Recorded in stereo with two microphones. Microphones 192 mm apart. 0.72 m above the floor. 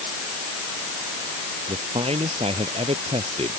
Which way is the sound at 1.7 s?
35° right (ahead or behind).